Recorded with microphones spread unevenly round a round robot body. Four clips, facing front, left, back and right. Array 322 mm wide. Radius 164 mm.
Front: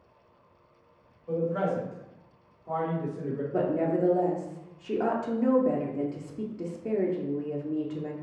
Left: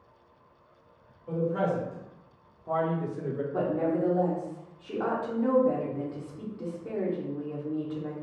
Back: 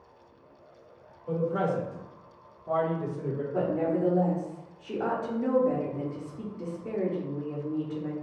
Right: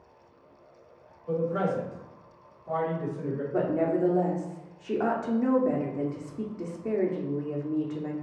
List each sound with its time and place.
1.3 s a man speaking: 165° right, 1.4 m; by 3.4 s 85° left, 1.1 m
3.5 s a woman speaking: 55° right, 0.8 m